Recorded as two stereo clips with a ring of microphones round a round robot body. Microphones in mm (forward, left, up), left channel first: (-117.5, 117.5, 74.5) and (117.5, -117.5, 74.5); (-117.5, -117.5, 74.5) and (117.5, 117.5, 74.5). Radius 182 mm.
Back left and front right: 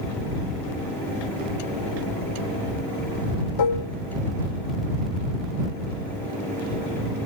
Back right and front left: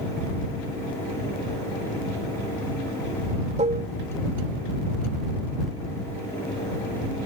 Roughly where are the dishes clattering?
Behind left.